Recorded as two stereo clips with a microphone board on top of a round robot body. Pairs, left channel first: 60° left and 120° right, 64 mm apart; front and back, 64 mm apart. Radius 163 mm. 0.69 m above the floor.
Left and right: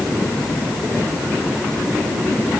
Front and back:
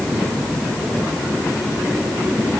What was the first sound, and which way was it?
Only background noise.